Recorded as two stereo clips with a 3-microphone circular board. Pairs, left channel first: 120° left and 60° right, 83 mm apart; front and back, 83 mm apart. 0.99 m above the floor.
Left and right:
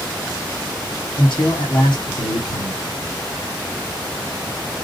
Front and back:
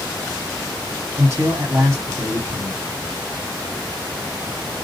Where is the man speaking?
125° left, 3 m.